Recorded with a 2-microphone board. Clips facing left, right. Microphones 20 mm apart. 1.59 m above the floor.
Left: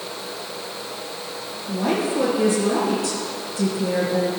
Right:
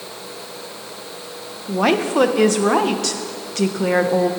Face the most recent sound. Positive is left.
turn(degrees=-60)  # may be behind; listen again after turning